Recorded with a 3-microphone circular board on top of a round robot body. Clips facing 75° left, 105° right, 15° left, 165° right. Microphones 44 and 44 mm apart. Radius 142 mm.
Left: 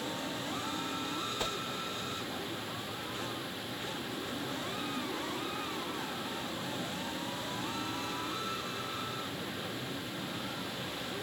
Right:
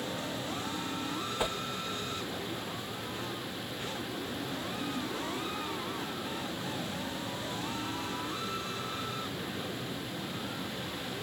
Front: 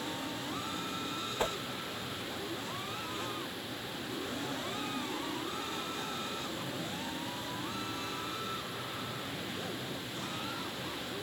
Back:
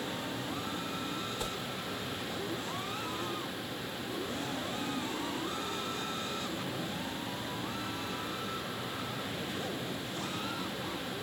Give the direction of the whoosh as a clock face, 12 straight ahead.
1 o'clock.